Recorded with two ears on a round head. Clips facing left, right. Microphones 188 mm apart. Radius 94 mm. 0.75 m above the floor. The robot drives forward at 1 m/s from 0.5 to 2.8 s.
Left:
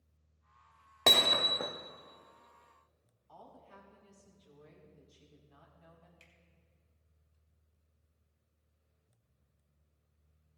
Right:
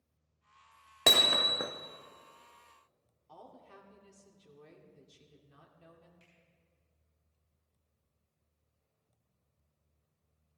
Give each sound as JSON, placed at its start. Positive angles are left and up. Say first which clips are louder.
{"t": 1.1, "sound": "hammering", "louder": "even", "side_deg": -10, "distance_m": 1.1}
{"t": 3.3, "sound": "a woman speaking", "louder": "right 2 dB", "side_deg": -55, "distance_m": 2.0}
{"t": 6.2, "sound": "a finger snap", "louder": "right 1 dB", "side_deg": 35, "distance_m": 3.0}